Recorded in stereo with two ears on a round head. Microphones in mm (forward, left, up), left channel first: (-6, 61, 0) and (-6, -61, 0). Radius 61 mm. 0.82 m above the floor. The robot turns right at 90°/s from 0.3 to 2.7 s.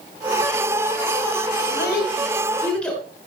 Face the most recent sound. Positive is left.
turn(degrees=10)  # may be behind; listen again after turning